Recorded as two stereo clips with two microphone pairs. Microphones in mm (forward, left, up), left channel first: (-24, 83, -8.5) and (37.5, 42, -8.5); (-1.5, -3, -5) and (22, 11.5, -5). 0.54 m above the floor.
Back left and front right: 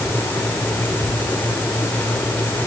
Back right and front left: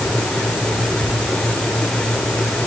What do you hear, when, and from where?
Only background noise.